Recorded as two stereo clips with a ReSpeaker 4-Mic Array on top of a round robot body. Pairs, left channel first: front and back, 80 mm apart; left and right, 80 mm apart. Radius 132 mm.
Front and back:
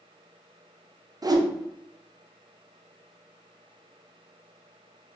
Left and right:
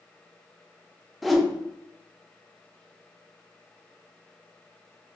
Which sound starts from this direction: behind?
A whoosh, at 1.2 s.